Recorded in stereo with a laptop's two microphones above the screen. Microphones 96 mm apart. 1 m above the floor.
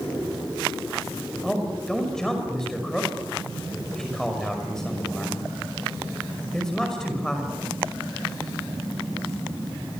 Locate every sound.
1.4 s a man speaking: 5° left (ahead or behind), 5.5 m